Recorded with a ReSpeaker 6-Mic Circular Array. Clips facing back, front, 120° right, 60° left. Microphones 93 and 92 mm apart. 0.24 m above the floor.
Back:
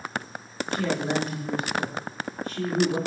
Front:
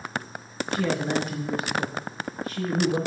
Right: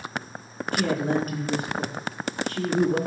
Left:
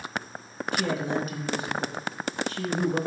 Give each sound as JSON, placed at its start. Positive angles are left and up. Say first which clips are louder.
{"t": 0.7, "sound": "a man speaking", "louder": "front 1 dB, right 4 dB", "azimuth_deg": -85, "distance_m": 3.0}